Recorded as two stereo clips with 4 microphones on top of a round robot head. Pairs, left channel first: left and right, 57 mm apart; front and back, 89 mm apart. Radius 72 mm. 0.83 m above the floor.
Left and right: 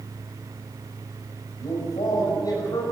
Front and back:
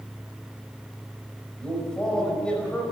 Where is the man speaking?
80° left, 5 m.